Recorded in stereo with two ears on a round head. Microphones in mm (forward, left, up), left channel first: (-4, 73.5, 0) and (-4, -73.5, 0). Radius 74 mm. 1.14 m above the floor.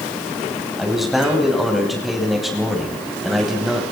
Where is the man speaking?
Centre (ahead or behind), 9 m.